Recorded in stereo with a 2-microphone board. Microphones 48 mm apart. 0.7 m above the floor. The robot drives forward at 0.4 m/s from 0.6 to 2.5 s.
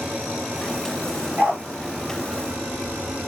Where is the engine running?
25° right (ahead or behind), 4.5 m; by 3.3 s 30° right (ahead or behind), 4 m.